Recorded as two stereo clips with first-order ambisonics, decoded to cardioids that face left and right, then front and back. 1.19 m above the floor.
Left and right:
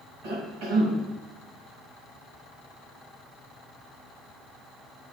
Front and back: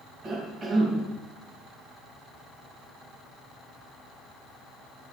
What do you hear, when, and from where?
0.2 s a cough: 115° right, 5.5 m